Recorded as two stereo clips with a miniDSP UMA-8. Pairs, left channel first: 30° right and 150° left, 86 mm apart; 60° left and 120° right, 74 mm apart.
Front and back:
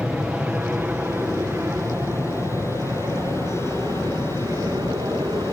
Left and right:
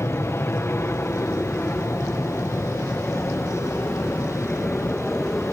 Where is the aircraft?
85° left; by 5.5 s 135° left.